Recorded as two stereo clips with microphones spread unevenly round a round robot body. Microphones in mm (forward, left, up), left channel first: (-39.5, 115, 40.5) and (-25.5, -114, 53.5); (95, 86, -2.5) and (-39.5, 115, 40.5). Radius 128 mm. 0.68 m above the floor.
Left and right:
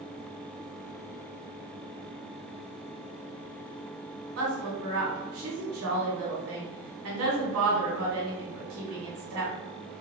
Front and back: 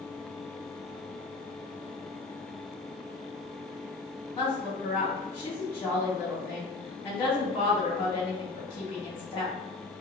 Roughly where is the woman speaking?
Right.